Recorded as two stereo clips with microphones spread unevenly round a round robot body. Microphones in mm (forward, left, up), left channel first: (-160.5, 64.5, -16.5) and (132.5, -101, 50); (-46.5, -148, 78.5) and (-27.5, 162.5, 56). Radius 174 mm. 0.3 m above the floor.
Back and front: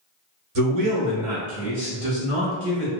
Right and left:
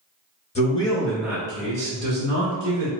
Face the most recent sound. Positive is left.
turn(degrees=55)